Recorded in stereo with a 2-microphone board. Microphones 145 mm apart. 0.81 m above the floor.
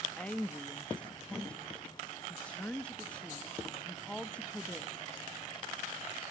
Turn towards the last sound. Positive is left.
turn(degrees=10)  # may be behind; listen again after turning